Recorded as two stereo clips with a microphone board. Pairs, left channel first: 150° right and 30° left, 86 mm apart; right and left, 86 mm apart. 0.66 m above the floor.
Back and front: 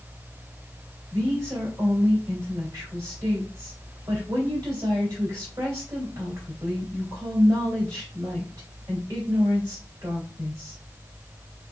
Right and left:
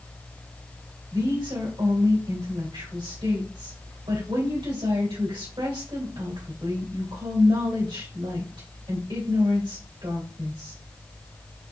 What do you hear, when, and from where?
1.1 s a woman speaking: 80° left, 2.5 m